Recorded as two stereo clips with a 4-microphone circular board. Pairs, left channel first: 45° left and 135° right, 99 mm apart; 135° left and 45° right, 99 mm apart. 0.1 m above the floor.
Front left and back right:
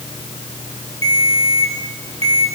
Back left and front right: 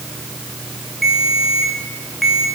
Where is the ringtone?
135° right, 3.5 m.